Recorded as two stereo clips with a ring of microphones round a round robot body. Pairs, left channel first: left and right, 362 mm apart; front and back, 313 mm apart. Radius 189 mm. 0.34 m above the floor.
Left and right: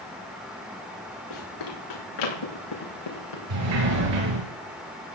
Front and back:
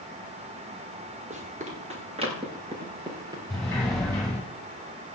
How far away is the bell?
No bell in this recording.